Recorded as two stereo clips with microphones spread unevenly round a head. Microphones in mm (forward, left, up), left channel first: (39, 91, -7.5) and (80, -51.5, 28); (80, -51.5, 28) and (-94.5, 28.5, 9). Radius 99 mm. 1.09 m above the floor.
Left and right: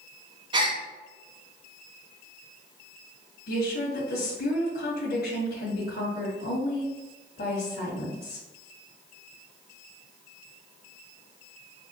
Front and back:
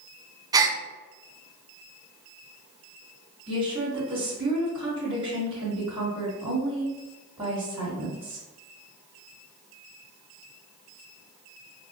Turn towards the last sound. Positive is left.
turn(degrees=90)